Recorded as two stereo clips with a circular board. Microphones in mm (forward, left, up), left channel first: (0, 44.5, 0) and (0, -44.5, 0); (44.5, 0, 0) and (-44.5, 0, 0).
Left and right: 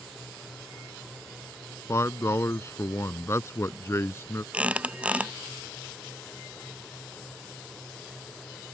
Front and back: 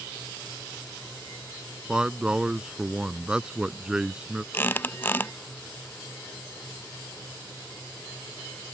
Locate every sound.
1.9 s a man speaking: 110° left
4.5 s a squeak: 35° right